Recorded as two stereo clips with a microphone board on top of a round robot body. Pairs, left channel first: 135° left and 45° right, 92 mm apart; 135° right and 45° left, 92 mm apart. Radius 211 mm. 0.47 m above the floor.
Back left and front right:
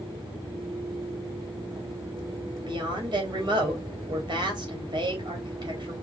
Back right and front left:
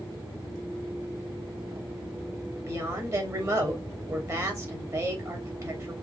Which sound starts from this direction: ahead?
A woman speaking, at 2.7 s.